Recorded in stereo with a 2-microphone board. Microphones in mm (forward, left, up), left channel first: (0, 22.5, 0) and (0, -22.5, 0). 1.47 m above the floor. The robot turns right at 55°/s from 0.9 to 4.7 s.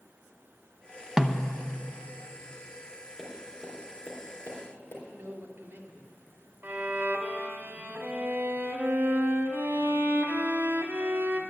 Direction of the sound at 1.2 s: 5° right (ahead or behind).